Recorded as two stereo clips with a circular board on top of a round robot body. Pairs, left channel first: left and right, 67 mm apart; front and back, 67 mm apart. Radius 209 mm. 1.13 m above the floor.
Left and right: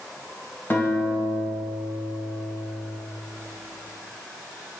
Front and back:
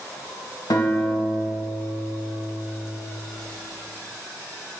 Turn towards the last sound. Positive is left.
turn(degrees=30)